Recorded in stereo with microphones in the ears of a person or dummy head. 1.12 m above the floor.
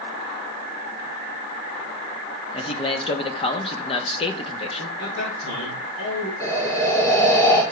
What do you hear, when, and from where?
2.5 s a man speaking: 30° left (ahead or behind), 1.0 m
5.0 s a man speaking: 75° left (ahead or behind), 4 m
6.4 s breathing: 20° left (ahead or behind), 1.5 m